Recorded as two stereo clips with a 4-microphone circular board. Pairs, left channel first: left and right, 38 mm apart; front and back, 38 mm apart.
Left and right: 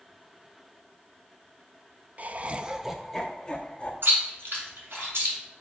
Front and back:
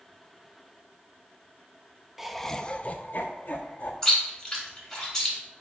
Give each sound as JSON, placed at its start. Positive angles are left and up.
{"t": 2.2, "sound": "laughter", "azimuth_deg": -100, "distance_m": 0.5}
{"t": 4.0, "sound": "chewing", "azimuth_deg": -75, "distance_m": 4.0}